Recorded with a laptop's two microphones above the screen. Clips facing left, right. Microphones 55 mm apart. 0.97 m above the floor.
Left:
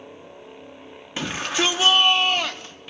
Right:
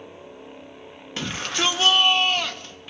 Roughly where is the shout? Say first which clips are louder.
Left 2 dB; centre.